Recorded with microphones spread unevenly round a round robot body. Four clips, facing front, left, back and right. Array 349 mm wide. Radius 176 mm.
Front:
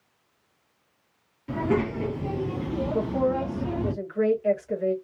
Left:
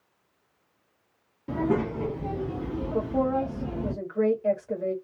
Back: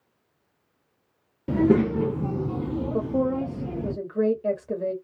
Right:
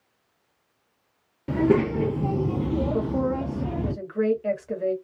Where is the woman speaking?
165° right, 1.4 m.